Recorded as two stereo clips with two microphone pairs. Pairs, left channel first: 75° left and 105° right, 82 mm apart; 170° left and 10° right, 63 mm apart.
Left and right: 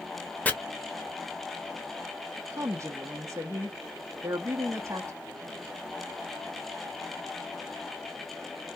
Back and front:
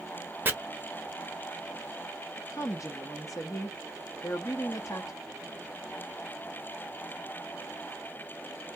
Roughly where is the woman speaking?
Behind.